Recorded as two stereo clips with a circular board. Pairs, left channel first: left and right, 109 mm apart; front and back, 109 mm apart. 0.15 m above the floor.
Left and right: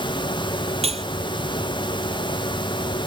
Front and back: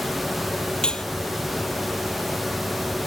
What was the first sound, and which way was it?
Cutlery clinking, 80° right.